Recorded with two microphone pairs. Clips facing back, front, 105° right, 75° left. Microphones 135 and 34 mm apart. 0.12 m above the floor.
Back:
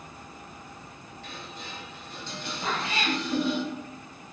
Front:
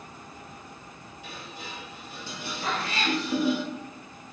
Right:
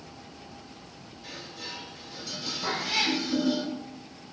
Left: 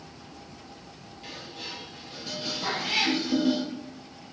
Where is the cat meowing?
115° left, 1.6 m.